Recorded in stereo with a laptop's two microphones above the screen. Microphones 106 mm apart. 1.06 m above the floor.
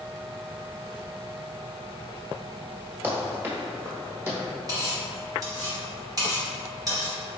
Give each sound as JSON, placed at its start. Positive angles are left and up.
{"t": 3.0, "sound": "running footsteps", "side_deg": -20, "distance_m": 1.1}
{"t": 4.7, "sound": "cutlery clinking", "side_deg": -35, "distance_m": 0.8}